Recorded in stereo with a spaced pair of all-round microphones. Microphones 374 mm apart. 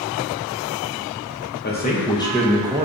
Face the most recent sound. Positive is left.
turn(degrees=-20)  # may be behind; listen again after turning